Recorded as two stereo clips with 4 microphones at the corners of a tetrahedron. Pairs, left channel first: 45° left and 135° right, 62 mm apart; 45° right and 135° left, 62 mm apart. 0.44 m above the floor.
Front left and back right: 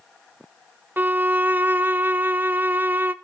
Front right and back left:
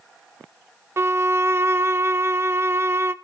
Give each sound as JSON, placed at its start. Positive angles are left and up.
{"t": 1.0, "sound": "a violin", "azimuth_deg": 170, "distance_m": 0.7}